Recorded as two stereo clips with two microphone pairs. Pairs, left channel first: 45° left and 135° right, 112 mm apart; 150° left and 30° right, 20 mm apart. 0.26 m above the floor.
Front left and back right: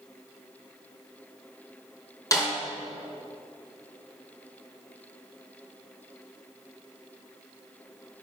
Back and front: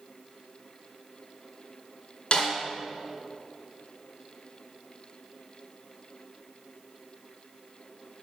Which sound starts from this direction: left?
A snare drum, at 2.3 s.